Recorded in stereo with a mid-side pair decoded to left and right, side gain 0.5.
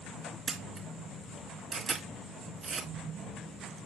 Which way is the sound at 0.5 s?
40° right.